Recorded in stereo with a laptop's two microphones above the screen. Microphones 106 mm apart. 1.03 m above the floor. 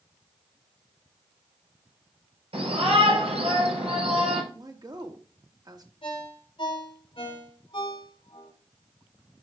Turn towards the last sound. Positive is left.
turn(degrees=60)  # may be behind; listen again after turning